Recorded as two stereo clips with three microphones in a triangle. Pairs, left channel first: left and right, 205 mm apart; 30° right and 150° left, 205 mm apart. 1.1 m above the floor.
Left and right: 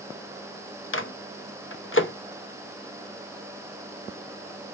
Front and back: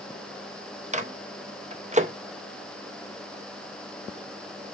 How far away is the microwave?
About 0.8 m.